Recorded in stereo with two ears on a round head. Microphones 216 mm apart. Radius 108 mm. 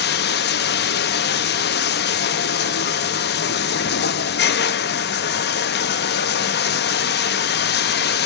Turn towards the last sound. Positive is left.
turn(degrees=45)  # may be behind; listen again after turning